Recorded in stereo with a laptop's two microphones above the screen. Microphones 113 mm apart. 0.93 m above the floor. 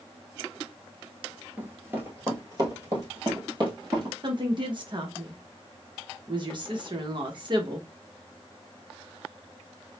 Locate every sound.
1.6 s running footsteps: 15° right (ahead or behind), 1.0 m; by 4.1 s 40° right (ahead or behind), 2.0 m
4.2 s a woman speaking: 45° right (ahead or behind), 0.7 m